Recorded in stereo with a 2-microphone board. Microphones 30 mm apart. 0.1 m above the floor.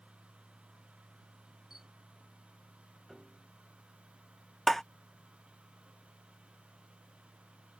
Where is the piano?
Centre (ahead or behind).